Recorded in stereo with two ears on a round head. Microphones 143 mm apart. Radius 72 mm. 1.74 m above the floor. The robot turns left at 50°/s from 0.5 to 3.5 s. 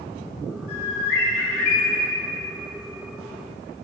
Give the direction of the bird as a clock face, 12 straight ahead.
8 o'clock.